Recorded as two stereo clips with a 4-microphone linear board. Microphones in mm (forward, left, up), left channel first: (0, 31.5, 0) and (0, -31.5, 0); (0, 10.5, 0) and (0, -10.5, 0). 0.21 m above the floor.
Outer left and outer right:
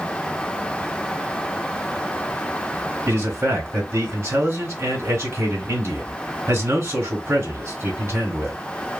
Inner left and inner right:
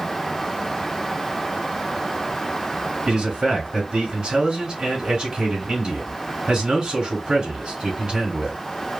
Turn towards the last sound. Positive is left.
turn(degrees=-45)  # may be behind; listen again after turning